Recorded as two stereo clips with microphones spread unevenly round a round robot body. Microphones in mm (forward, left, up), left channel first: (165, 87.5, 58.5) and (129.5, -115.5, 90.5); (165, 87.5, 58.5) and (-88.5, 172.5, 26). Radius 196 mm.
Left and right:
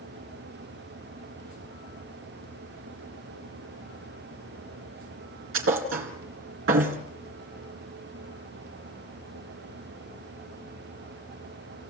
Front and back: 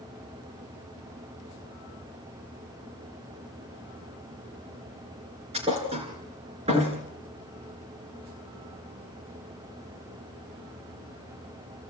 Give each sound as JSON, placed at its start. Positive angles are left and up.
{"t": 5.5, "sound": "a thud", "azimuth_deg": -120, "distance_m": 2.0}